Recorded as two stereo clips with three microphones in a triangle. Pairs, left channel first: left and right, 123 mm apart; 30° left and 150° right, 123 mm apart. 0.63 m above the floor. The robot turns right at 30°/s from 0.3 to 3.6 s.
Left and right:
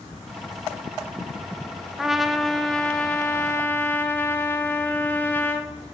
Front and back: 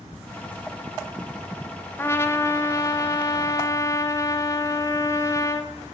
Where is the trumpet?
5° right, 0.6 m; by 5.7 s 40° left, 0.6 m.